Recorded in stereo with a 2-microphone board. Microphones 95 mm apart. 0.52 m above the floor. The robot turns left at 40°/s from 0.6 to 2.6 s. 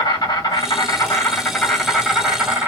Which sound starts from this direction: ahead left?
An insect, at 0.0 s.